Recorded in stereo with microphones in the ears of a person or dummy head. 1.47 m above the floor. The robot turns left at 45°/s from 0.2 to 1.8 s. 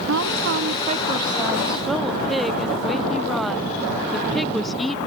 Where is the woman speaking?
110° right; by 5.0 s straight behind.